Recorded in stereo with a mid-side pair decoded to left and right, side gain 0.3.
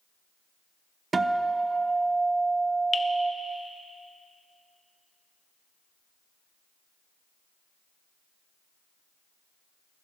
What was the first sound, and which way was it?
A guitar, 45° right.